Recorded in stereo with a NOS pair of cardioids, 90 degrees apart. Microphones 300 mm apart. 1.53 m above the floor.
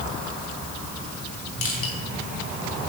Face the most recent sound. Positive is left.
turn(degrees=45)